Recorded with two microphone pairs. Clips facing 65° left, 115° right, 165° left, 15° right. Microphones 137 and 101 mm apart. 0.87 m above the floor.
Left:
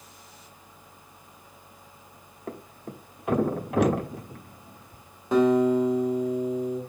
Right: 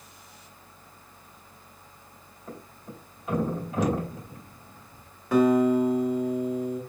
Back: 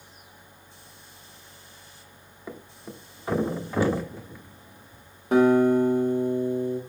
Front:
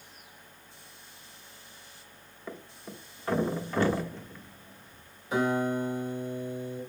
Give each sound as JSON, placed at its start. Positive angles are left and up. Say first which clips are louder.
{"t": 2.5, "sound": "a thud", "louder": "left 4 dB, back 2 dB", "azimuth_deg": 85, "distance_m": 0.9}
{"t": 5.3, "sound": "a guitar", "louder": "even, back 9 dB", "azimuth_deg": 130, "distance_m": 2.0}